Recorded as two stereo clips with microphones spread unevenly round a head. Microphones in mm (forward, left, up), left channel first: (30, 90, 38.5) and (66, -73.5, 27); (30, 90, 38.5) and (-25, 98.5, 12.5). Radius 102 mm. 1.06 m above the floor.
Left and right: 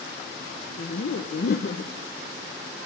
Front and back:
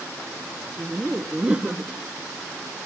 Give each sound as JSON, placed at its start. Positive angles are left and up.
{"t": 0.8, "sound": "laughter", "azimuth_deg": 125, "distance_m": 0.7}